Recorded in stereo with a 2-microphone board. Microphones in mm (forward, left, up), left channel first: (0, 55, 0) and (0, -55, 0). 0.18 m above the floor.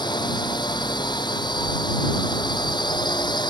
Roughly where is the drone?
Left.